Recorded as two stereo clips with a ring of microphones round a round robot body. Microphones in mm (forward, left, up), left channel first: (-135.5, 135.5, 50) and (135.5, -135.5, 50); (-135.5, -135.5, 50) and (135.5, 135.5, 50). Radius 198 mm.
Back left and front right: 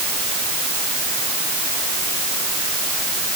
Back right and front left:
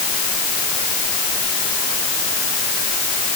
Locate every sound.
Only background noise.